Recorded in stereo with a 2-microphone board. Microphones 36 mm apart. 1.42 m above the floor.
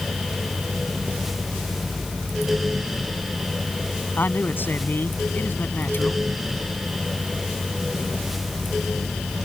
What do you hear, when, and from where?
4.2 s a man speaking: 65° left (ahead or behind)